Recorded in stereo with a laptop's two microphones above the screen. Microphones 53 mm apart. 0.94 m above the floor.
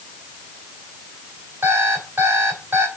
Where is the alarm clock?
50° right (ahead or behind), 3.5 m.